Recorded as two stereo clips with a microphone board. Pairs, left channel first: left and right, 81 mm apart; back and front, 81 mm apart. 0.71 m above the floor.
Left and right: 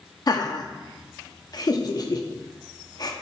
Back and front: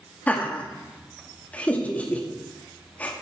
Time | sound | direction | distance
0.3 | laughter | 110° left | 0.8 m